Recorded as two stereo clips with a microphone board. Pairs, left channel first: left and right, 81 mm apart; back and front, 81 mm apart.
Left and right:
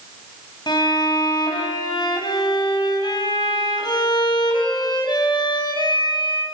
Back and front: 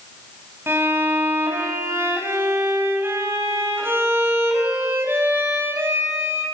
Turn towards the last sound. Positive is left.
turn(degrees=60)